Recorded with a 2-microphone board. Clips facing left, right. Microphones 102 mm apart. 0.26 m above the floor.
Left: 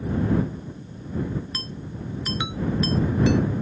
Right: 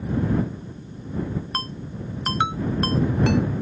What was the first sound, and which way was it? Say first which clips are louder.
A ringtone: right 3 dB; 55° right (ahead or behind).